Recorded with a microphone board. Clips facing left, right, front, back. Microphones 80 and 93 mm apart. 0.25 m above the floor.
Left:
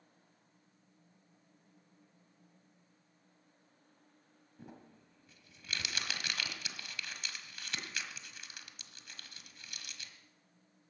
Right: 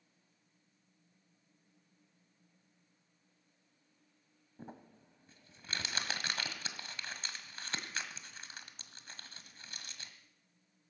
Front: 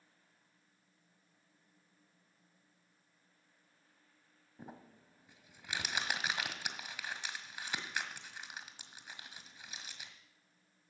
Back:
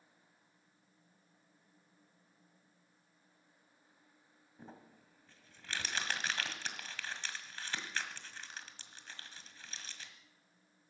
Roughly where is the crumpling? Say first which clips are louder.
Right 2 dB, front 2 dB; right.